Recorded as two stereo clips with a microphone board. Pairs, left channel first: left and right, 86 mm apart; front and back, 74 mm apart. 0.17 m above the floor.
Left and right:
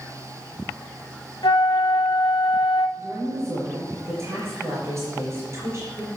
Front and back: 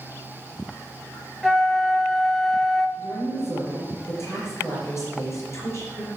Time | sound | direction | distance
1.4 | a flute | 85° left | 0.6 m
3.0 | a woman speaking | 40° right | 3 m